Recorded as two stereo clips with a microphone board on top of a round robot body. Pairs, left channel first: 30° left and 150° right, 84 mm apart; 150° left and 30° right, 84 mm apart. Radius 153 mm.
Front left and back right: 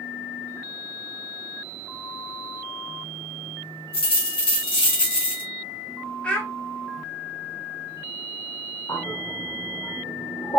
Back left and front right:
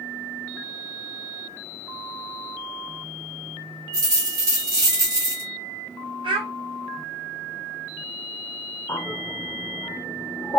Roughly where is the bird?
Left.